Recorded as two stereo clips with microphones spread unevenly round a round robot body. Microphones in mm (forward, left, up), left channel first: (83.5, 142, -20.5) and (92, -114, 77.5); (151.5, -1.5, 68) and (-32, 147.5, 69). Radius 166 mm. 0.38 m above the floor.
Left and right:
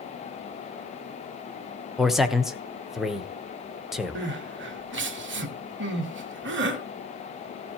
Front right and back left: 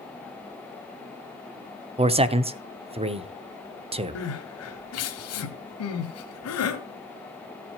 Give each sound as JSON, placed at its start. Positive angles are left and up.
{"t": 2.0, "sound": "a man speaking", "azimuth_deg": 125, "distance_m": 0.8}
{"t": 4.2, "sound": "crying", "azimuth_deg": -35, "distance_m": 1.7}